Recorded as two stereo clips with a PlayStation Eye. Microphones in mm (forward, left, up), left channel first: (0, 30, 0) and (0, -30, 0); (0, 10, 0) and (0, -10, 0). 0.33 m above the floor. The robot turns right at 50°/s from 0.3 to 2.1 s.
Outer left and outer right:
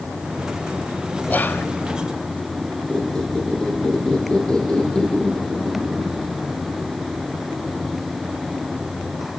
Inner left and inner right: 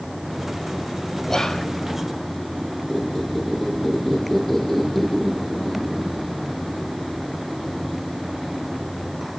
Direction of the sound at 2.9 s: 15° left (ahead or behind).